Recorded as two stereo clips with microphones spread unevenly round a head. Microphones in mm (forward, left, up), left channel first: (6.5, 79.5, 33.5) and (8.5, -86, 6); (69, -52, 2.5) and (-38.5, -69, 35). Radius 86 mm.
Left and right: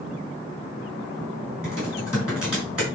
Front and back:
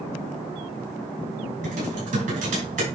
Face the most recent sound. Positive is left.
turn(degrees=-175)